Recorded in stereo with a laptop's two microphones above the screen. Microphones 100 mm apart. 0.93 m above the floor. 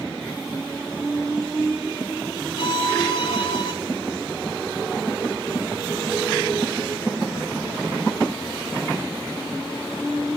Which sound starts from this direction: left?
A violin, at 2.6 s.